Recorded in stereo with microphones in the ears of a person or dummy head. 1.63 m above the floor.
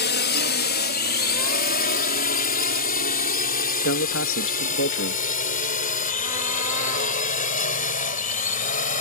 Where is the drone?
60° left (ahead or behind); by 9.0 s 45° left (ahead or behind).